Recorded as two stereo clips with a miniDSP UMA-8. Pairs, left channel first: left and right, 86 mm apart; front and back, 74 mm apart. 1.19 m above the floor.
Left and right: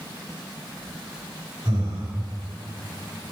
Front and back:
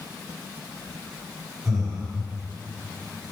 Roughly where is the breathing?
Right.